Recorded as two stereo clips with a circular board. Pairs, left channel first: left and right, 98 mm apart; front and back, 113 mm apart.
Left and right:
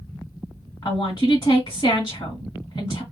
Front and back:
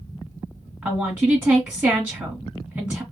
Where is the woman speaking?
110° left, 1.2 m.